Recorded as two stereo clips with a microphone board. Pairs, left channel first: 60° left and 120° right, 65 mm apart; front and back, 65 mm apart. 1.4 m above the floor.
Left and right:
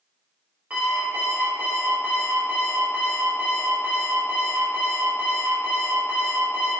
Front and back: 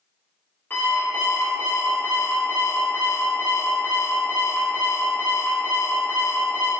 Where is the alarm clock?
55° right, 1.0 m.